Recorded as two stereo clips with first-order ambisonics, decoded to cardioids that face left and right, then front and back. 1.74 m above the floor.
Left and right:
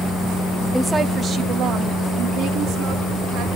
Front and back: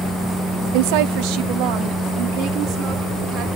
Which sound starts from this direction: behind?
A woman speaking, at 0.7 s.